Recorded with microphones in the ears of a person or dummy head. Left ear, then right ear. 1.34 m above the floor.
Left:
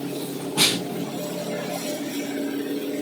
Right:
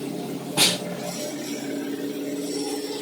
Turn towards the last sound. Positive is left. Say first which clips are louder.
# even
turn(degrees=-20)  # may be behind; listen again after turning